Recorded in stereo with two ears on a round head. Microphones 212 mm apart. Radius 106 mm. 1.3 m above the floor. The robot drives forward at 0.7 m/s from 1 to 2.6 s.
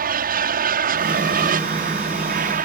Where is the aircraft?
40° right (ahead or behind); by 2.6 s 35° right (ahead or behind).